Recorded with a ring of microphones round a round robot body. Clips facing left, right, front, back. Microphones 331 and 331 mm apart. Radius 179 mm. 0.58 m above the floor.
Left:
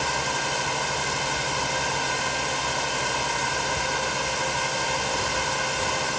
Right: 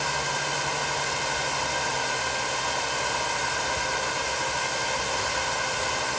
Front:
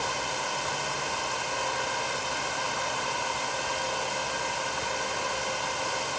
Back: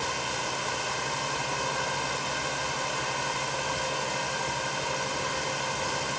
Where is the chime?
I don't hear a chime.